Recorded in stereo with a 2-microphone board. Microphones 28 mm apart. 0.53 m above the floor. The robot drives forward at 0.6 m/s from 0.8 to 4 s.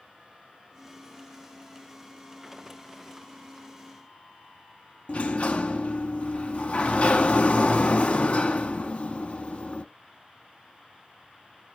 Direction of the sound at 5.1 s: 50° left (ahead or behind).